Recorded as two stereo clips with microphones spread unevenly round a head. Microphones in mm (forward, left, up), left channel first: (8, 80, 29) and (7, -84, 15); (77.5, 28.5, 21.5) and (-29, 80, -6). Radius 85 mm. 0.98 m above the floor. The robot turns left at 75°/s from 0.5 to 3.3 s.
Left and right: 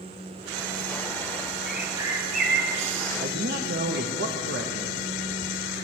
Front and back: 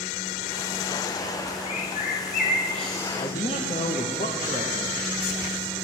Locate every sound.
1.7 s a bird: 5° left, 1.2 m; by 4.1 s 120° right, 1.2 m
3.2 s a man speaking: 65° right, 0.9 m; by 5.0 s 75° right, 0.9 m